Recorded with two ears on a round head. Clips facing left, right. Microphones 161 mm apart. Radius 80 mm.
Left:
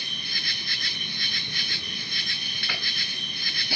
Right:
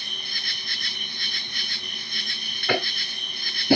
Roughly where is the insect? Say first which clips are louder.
Left 1 dB; left.